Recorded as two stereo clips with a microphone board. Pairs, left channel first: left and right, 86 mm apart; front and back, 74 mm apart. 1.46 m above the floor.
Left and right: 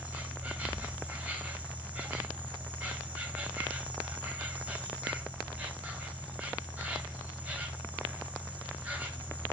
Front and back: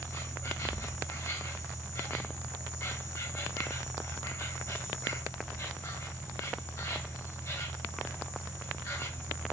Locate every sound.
0.0 s an insect: 25° right, 1.6 m